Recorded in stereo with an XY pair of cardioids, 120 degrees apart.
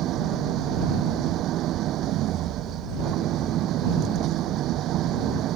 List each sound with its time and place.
0.0 s an engine running: 65° right